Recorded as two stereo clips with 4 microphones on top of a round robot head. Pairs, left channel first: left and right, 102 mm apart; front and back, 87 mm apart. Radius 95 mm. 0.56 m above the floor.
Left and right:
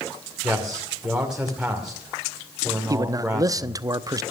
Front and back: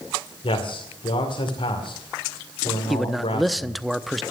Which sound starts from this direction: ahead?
A man speaking, at 0.4 s.